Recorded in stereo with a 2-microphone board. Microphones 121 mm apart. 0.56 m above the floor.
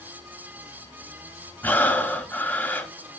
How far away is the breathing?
About 1.2 m.